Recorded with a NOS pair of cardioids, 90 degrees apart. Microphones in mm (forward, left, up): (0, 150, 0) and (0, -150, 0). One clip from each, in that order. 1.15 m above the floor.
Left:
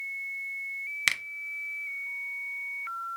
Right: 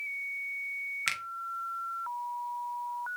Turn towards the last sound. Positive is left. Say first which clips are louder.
# left 7 dB
turn(degrees=20)